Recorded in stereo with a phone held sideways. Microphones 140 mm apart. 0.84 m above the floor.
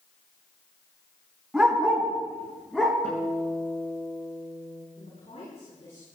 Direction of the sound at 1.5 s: 5° right (ahead or behind).